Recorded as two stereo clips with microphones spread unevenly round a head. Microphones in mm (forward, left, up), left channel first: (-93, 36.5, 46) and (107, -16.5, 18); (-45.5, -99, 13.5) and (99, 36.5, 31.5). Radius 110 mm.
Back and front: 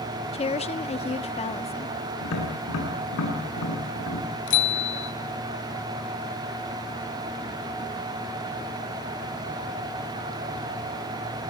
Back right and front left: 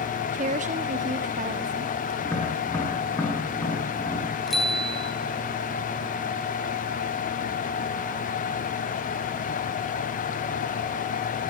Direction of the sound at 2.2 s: 145° left.